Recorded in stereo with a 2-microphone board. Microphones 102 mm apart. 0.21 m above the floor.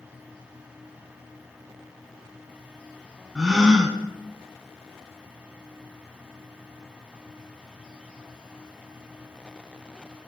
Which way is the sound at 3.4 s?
5° right (ahead or behind).